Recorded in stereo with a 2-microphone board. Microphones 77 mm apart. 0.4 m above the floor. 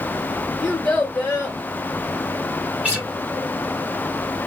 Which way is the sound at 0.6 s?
25° left (ahead or behind).